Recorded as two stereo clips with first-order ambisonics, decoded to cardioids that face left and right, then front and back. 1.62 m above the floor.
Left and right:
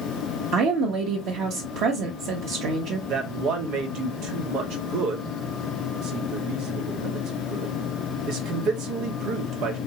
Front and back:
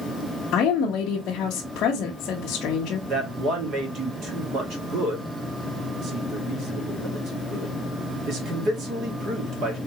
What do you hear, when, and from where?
0.5 s a woman speaking: 50° right, 0.9 m
3.1 s a man speaking: 125° right, 1.7 m